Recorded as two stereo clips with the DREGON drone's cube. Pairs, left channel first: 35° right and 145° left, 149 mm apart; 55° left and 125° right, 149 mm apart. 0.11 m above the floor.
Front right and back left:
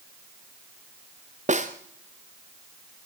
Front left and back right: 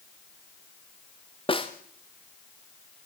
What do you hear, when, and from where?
1.5 s a snare drum: 110° left, 2.0 m